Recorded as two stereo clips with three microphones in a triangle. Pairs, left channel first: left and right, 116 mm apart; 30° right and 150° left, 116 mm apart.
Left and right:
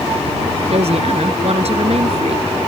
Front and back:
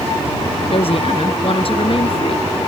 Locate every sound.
0.7 s a woman speaking: 65° right